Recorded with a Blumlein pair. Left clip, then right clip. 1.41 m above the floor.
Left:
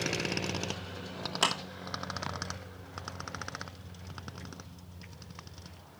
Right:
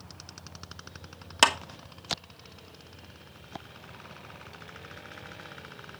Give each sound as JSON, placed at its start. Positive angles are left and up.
{"t": 1.4, "sound": "a clap", "azimuth_deg": -65, "distance_m": 1.2}